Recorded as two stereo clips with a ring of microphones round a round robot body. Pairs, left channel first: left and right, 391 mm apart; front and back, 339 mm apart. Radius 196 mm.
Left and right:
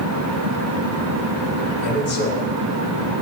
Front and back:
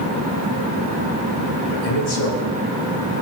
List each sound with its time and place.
1.7 s a man speaking: 25° left, 6.5 m